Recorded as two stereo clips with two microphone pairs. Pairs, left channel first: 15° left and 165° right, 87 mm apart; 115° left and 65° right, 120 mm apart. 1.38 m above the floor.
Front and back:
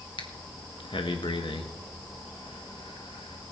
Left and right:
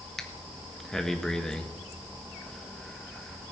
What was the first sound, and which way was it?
Breathing, 30° left.